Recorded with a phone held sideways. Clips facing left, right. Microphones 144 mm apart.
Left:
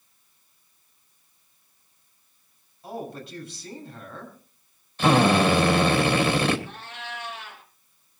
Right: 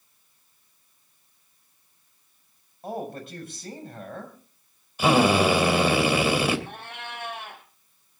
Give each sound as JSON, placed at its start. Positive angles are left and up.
{"t": 2.8, "sound": "a man speaking", "side_deg": -50, "distance_m": 5.5}
{"t": 5.0, "sound": "a drill", "side_deg": -10, "distance_m": 2.5}
{"t": 6.7, "sound": "a cat meowing", "side_deg": -55, "distance_m": 3.0}